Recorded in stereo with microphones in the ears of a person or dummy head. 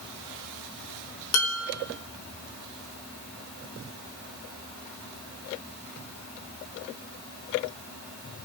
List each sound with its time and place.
1.3 s dishes clattering: 70° left (ahead or behind), 2.5 m